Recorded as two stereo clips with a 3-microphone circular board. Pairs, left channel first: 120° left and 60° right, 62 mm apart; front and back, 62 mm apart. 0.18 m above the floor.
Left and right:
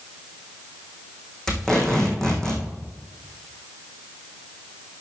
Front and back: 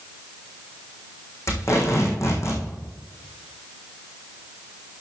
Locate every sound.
1.5 s tape being pulled: 40° left, 3 m